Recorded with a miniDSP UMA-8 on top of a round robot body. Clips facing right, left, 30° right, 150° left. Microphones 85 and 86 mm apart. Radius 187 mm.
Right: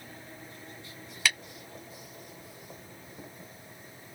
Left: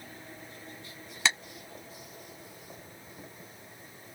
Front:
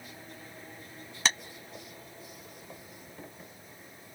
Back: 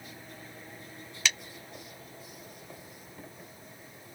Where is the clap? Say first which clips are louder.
Left 1 dB, front 2 dB; 25° left.